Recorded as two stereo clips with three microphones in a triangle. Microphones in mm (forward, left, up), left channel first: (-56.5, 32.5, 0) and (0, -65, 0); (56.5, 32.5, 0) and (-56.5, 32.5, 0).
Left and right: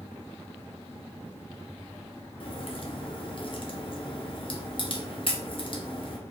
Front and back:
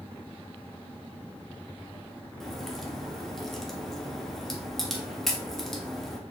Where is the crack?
90° left, 0.7 m.